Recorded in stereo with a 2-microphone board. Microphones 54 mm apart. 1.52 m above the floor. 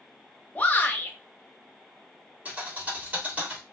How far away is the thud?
About 1.4 m.